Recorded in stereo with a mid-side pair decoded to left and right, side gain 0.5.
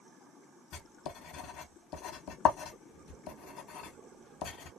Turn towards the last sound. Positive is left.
turn(degrees=70)